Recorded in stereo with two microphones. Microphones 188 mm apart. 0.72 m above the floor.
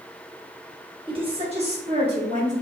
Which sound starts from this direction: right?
A woman speaking, at 1.1 s.